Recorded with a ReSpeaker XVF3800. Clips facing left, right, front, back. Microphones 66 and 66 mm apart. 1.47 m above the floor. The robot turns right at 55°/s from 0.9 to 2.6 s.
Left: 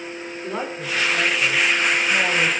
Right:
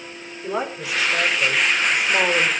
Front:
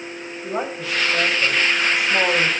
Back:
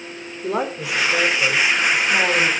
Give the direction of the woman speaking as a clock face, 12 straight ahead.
6 o'clock.